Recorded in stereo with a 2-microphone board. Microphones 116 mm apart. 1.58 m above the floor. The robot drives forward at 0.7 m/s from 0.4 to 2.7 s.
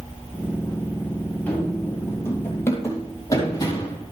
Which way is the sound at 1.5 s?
15° left (ahead or behind).